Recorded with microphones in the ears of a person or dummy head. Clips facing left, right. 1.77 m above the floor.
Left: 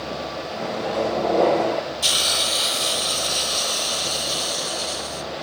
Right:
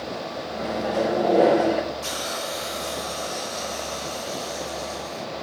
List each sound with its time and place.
0.6 s a microwave: 5° right (ahead or behind), 1.1 m
2.0 s a hiss: 45° left (ahead or behind), 1.0 m